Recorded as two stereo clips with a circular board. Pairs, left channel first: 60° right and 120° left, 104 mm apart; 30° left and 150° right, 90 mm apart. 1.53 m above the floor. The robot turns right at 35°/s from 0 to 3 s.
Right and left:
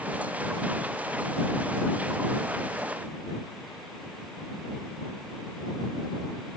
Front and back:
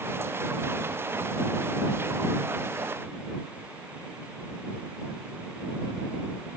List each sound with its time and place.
Only background noise.